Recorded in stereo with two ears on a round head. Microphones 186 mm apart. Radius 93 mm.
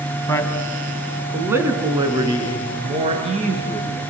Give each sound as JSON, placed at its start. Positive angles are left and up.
{"t": 0.3, "sound": "a man speaking", "side_deg": 15, "distance_m": 3.0}